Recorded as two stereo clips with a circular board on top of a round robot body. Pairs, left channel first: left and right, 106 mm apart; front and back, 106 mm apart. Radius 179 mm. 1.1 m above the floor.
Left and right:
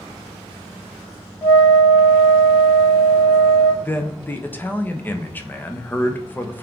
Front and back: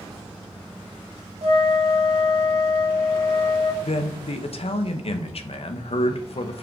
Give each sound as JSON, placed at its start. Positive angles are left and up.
{"t": 1.4, "sound": "a flute", "azimuth_deg": 150, "distance_m": 2.5}
{"t": 3.8, "sound": "a man speaking", "azimuth_deg": 20, "distance_m": 1.2}